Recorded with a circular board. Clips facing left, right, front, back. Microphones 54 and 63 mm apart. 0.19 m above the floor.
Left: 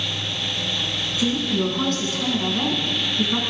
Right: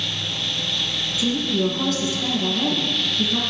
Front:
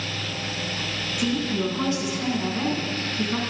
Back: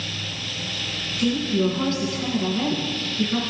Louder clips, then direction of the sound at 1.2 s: Even, back 4 dB; 70° left.